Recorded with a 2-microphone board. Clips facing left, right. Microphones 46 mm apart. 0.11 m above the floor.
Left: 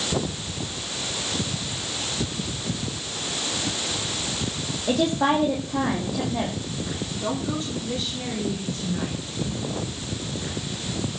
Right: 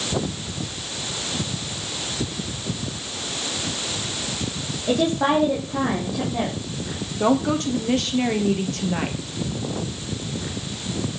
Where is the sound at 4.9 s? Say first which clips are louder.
Right 1 dB; centre (ahead or behind), 6 m.